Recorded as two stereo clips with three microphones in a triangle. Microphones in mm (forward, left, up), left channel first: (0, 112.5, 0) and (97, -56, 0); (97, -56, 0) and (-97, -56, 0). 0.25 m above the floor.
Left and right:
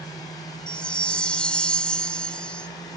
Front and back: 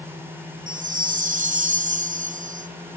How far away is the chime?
About 1.0 m.